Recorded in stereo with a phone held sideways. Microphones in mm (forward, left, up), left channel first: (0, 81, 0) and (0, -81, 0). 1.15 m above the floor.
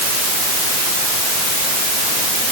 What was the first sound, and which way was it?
Only background noise.